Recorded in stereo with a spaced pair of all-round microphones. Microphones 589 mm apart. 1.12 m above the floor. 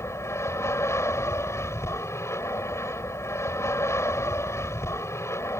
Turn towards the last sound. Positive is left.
turn(degrees=5)  # may be behind; listen again after turning